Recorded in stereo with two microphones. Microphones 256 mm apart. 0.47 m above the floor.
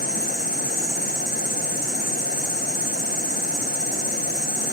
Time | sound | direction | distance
0.0 | an insect | 75° right (ahead or behind) | 1.5 m